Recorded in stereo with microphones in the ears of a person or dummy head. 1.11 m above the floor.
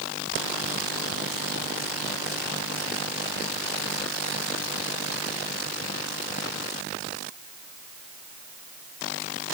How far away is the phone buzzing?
I don't hear a phone buzzing.